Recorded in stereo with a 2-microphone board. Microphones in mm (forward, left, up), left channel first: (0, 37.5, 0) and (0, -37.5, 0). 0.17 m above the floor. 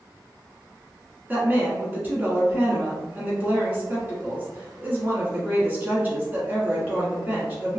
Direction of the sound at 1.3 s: 25° right (ahead or behind).